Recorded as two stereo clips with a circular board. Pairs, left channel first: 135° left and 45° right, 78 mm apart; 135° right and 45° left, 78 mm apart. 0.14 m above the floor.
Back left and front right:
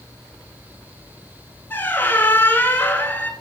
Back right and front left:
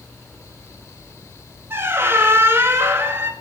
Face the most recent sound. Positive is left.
turn(degrees=85)